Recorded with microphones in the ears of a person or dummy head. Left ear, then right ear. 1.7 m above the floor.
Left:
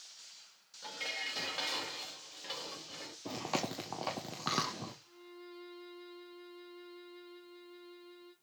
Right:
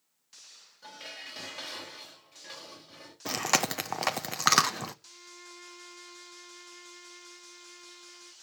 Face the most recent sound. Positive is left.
turn(degrees=-55)  # may be behind; listen again after turning